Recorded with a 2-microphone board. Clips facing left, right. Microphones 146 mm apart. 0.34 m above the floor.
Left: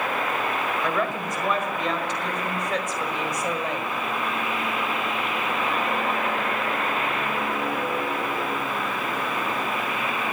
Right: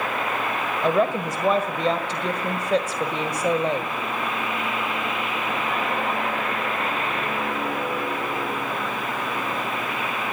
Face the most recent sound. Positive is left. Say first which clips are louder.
# right 5 dB
turn(degrees=-35)  # may be behind; listen again after turning